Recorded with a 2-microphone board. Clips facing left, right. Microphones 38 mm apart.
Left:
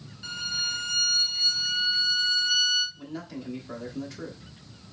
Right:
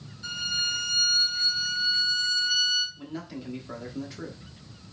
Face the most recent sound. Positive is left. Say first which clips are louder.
# even
turn(degrees=-10)  # may be behind; listen again after turning